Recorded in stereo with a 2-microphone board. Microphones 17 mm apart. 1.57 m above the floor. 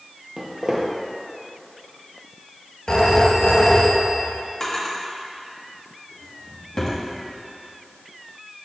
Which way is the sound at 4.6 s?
45° left (ahead or behind).